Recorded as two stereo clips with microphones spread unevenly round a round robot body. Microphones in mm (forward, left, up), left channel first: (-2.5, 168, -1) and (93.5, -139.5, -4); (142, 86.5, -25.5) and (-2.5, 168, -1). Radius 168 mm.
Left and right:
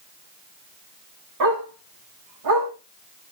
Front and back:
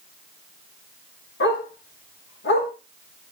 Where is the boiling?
I don't hear boiling.